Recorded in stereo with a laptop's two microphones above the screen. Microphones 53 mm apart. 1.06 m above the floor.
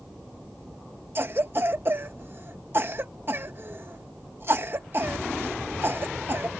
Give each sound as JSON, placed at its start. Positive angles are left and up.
{"t": 1.1, "sound": "a cough", "side_deg": -45}